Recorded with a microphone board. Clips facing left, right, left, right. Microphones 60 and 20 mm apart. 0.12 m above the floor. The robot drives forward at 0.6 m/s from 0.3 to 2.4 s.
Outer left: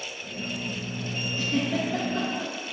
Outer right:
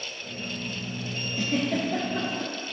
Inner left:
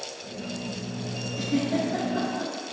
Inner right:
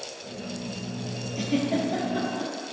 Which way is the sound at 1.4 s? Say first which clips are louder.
Outer right 1 dB, even; 60° right (ahead or behind).